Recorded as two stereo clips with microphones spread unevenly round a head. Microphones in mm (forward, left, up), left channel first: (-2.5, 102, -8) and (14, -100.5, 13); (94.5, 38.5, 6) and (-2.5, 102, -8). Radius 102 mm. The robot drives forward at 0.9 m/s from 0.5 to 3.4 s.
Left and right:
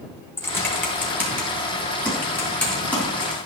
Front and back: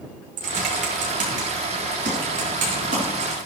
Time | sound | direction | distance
0.4 | typing on a keyboard | 175° left | 1.7 m